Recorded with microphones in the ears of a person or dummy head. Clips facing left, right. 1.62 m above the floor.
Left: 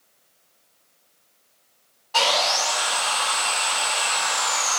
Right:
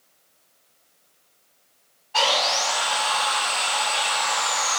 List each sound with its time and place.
2.1 s sawing: 70° left (ahead or behind), 2.0 m